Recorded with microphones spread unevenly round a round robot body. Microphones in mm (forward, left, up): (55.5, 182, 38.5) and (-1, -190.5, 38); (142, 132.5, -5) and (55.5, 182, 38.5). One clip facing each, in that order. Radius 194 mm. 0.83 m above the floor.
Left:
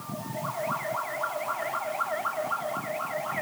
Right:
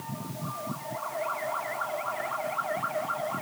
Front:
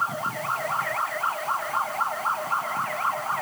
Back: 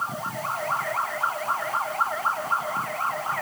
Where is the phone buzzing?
No phone buzzing in this recording.